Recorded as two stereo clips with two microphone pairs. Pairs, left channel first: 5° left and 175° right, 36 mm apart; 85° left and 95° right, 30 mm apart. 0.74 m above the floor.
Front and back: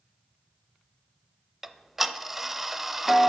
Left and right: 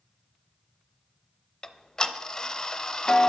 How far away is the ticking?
About 0.5 m.